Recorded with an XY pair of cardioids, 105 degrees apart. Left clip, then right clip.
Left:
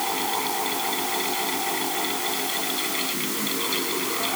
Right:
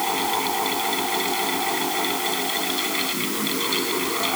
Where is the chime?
No chime in this recording.